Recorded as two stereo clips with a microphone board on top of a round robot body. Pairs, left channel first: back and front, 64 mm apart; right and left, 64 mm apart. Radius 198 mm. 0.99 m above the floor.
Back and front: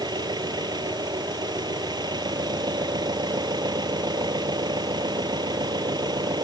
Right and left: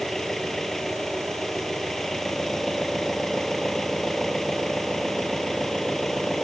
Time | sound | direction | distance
0.0 | an engine running | 5° right | ?